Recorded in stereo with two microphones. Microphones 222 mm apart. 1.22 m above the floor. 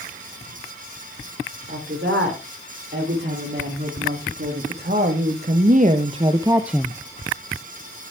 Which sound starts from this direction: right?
A woman speaking, at 1.7 s.